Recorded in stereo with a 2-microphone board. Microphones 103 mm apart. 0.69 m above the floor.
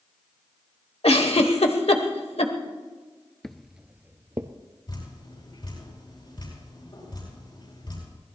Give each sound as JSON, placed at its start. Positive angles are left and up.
{"t": 1.0, "sound": "a giggle", "side_deg": 80, "distance_m": 1.2}
{"t": 3.4, "sound": "footsteps", "side_deg": 5, "distance_m": 0.7}
{"t": 4.9, "sound": "dripping", "side_deg": 50, "distance_m": 9.5}